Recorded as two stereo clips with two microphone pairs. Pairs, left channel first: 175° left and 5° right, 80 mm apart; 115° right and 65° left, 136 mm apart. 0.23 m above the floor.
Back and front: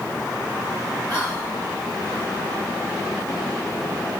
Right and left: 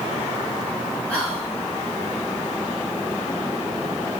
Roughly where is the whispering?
Behind.